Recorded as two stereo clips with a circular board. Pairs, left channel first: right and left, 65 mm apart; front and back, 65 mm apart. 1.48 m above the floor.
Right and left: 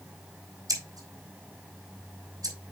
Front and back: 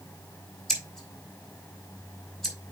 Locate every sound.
0.7 s scissors: 85° left, 4 m